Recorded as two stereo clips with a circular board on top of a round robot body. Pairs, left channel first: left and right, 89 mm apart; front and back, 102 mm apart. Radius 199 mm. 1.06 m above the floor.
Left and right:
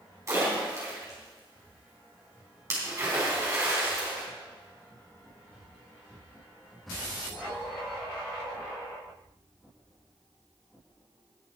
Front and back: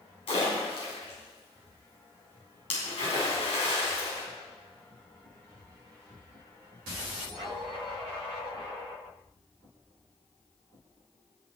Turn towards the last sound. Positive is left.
turn(degrees=-35)